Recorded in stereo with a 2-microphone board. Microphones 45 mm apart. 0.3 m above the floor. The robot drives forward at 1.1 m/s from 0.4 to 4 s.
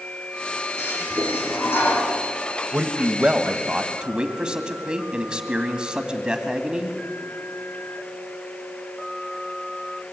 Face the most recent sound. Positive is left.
turn(degrees=-20)  # may be behind; listen again after turning